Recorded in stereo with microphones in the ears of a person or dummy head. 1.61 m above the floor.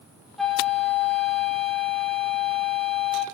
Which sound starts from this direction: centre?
A flute, at 0.4 s.